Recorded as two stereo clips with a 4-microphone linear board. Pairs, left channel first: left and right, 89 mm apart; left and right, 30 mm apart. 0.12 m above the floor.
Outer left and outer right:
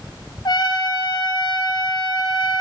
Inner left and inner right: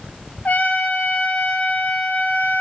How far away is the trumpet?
About 1.1 m.